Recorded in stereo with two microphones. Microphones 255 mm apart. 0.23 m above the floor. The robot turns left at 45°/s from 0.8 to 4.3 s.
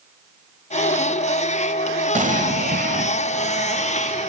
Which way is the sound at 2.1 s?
60° right.